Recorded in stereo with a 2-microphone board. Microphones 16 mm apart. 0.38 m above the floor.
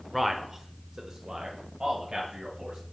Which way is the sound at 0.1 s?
5° right (ahead or behind).